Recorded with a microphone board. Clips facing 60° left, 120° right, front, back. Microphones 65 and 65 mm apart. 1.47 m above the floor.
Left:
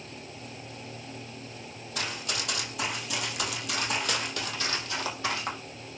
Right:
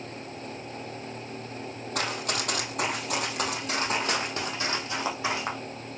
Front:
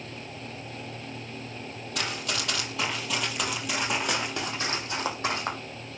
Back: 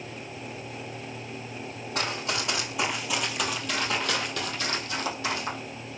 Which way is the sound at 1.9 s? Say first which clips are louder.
Right 4 dB, back 2 dB; 130° right.